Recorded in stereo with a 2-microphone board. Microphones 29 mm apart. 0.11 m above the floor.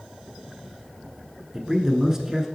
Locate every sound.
1.5 s a man speaking: 15° right (ahead or behind), 1.0 m